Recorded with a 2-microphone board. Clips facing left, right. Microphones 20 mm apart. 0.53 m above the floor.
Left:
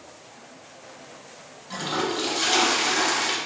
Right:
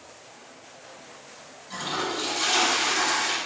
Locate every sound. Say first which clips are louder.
1.7 s a toilet flushing: left 2 dB; 30° left (ahead or behind), 0.6 m